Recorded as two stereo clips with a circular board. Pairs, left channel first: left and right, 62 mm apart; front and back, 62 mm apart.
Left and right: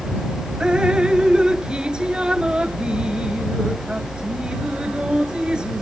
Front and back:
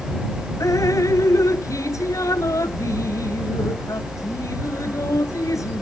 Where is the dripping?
15° right.